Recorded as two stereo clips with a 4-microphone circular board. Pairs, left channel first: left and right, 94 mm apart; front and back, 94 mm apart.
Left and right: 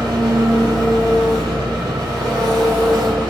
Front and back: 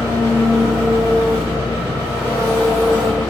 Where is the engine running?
45° right, 1.7 m.